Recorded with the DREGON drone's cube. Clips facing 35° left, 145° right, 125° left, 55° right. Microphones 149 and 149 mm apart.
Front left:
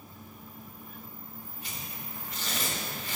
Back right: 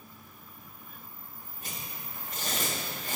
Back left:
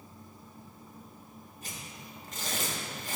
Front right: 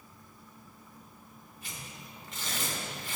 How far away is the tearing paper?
About 1.7 m.